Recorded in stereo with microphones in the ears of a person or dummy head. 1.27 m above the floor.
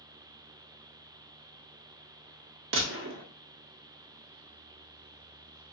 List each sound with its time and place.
2.7 s a gunshot: 60° right (ahead or behind), 0.6 m